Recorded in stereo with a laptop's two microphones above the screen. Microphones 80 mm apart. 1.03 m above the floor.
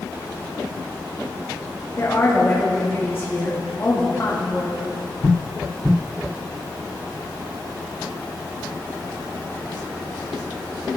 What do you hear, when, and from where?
2.0 s a woman speaking: 30° left (ahead or behind), 2.5 m